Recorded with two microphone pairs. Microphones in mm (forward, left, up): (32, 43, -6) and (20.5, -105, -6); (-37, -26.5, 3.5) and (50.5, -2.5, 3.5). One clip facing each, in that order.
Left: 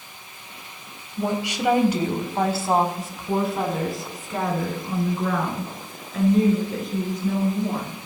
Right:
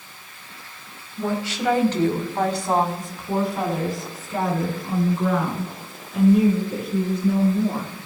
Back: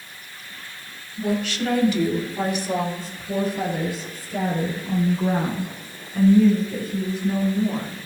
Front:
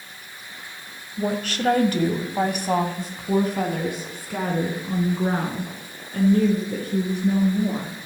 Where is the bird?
No bird in this recording.